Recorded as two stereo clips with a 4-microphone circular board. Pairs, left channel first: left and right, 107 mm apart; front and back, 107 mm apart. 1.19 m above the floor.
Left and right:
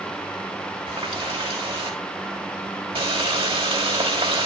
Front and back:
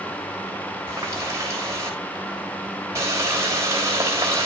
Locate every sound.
0.9 s a running tap: 120° right, 4 m